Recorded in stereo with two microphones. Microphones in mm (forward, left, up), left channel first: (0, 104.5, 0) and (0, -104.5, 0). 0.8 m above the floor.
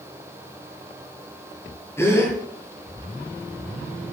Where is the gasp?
10° left (ahead or behind), 7 m.